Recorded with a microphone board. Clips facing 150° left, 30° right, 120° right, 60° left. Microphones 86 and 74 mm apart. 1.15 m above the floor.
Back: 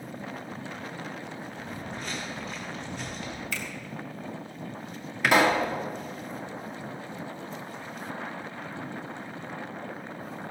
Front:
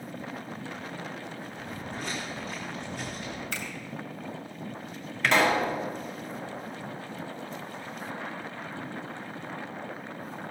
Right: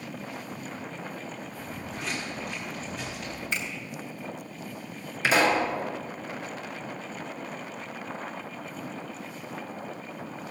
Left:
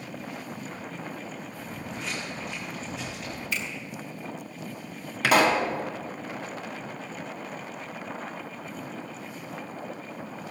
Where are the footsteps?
35° right, 4 m; by 3.4 s 30° right, 6 m.